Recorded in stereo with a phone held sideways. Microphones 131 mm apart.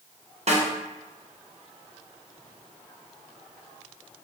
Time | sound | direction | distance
0.5 | a snare drum | 55° right (ahead or behind) | 0.6 m